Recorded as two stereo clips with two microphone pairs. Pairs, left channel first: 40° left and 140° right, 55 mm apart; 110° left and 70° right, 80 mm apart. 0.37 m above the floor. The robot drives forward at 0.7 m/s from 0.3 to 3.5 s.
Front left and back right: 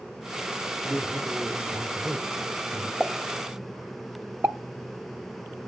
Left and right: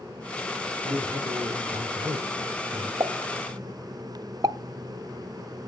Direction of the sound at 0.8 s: 80° right.